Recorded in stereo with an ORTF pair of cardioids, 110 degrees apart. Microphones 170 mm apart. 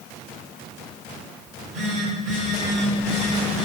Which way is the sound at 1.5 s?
50° right.